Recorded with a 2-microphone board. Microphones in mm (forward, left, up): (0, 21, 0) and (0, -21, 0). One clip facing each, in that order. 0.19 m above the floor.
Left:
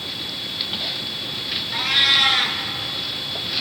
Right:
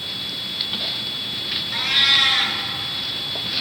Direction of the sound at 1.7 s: Centre (ahead or behind).